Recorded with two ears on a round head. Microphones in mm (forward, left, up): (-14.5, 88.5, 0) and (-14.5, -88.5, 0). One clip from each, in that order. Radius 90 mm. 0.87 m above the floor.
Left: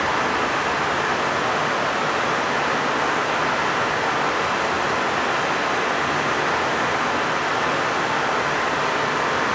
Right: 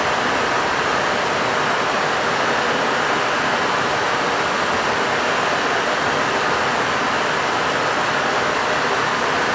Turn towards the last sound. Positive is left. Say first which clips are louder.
# right 2 dB
turn(degrees=-75)  # may be behind; listen again after turning